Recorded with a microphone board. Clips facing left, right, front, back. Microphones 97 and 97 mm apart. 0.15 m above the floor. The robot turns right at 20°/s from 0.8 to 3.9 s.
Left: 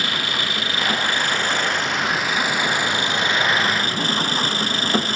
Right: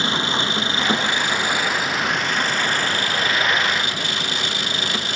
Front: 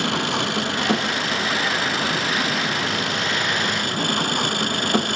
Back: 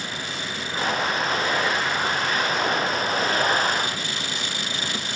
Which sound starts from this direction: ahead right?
An engine running, at 0.0 s.